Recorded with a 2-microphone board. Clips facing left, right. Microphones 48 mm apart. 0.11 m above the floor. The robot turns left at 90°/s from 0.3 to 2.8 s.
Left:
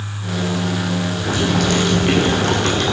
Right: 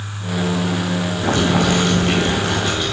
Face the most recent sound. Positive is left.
turn(degrees=95)